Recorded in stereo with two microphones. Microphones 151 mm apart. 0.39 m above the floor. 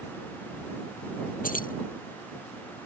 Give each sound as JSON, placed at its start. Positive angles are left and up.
{"t": 1.4, "sound": "keys jangling", "side_deg": 65}